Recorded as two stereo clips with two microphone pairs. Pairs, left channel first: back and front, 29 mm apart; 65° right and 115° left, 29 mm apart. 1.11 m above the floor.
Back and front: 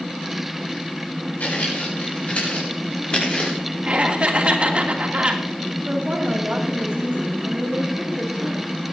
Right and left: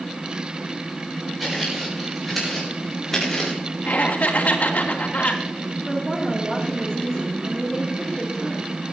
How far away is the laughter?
About 2.5 m.